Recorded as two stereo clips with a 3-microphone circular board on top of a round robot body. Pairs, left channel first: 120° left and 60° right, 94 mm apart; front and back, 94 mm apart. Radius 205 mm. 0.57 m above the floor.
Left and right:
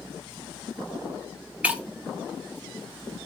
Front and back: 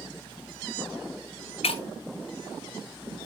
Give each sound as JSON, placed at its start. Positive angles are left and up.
{"t": 1.6, "sound": "breaking glass", "azimuth_deg": 15, "distance_m": 1.0}